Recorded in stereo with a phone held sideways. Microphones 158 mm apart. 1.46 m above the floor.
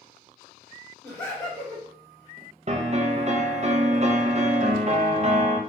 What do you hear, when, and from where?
1.0 s laughter: 10° left (ahead or behind), 1.9 m
2.7 s a piano: 45° right (ahead or behind), 0.5 m